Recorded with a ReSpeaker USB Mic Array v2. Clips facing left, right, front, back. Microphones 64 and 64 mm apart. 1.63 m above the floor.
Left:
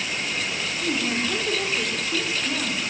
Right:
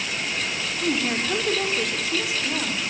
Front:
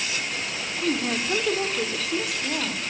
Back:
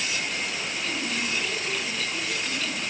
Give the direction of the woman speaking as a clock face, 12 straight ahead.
1 o'clock.